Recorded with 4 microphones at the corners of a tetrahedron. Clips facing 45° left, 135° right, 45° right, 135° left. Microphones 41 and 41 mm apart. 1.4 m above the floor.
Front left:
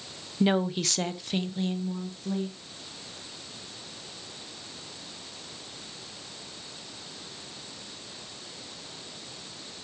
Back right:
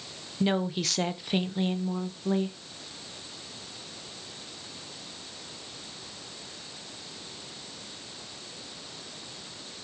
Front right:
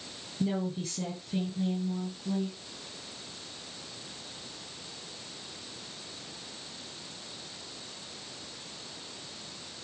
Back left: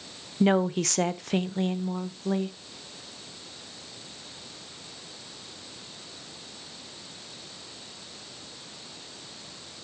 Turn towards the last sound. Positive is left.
turn(degrees=170)